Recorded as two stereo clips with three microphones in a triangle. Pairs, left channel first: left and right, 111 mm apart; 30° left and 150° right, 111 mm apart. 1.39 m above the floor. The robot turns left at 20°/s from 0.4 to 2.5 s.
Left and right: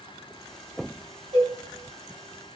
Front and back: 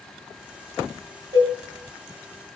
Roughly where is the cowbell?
Right.